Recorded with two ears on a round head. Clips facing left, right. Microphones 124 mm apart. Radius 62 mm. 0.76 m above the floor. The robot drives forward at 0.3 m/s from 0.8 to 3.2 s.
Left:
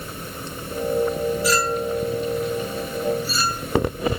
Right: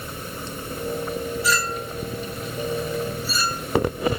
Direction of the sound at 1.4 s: 70° right (ahead or behind).